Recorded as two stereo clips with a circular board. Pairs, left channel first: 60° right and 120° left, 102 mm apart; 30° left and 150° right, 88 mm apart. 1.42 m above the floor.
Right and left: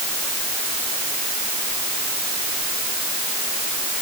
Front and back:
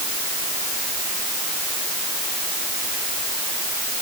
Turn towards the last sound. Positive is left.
No sound to turn to.